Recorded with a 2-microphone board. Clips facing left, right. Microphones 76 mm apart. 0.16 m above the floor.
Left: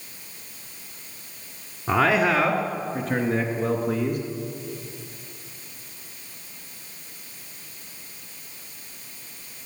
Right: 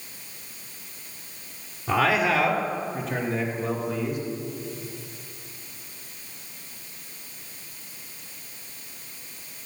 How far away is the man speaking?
About 2.5 m.